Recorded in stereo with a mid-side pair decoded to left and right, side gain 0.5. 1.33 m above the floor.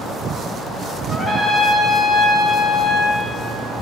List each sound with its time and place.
1.1 s a trumpet: 35° left, 7 m